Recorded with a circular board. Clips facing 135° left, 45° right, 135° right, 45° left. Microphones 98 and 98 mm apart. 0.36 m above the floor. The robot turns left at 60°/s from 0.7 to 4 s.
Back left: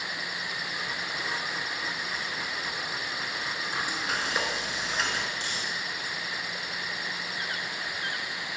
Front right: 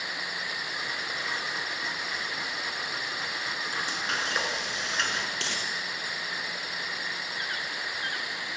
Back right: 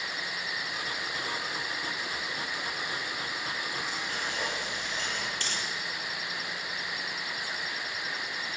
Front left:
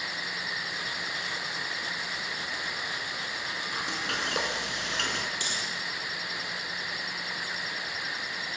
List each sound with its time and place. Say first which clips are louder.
3.7 s frying: back left 1 dB, front left 2 dB; 65° left, 4 m; by 5.3 s 50° left, 4 m
5.4 s a dropped coin: front right 1 dB, even; 30° right, 5 m